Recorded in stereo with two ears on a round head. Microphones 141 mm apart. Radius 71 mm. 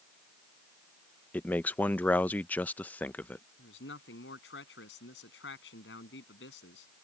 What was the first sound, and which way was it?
A man speaking, 10° left (ahead or behind).